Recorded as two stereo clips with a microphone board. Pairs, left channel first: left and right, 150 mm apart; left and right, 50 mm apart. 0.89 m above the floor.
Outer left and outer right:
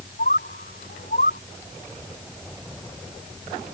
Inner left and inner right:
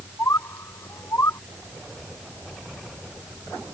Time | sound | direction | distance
0.2 | a bird | 85° left | ?